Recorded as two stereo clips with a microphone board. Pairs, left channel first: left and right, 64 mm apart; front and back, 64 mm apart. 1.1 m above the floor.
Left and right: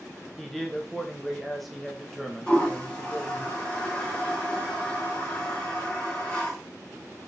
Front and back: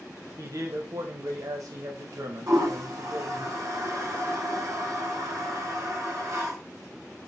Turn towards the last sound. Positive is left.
turn(degrees=160)